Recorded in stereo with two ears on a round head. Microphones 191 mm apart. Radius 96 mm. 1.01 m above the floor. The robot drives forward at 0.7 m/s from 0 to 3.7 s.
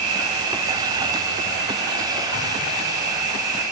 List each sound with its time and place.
0.0 s an insect: 80° right, 3 m; by 3.7 s 45° right (ahead or behind), 4 m